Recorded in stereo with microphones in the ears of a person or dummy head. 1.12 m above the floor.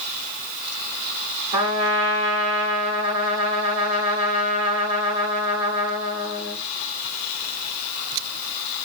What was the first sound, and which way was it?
A trumpet, 30° right (ahead or behind).